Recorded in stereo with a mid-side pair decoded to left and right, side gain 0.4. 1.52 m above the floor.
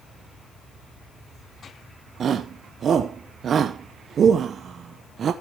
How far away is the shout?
About 0.9 m.